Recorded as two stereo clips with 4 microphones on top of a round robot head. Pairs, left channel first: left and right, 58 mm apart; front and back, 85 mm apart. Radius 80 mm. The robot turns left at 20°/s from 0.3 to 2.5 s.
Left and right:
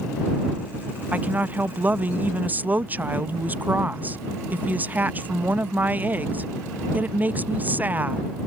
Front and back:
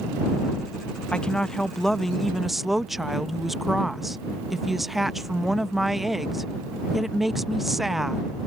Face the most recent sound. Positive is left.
turn(degrees=-95)